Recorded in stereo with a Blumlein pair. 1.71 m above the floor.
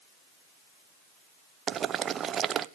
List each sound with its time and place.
1.7 s boiling: 25° right, 0.8 m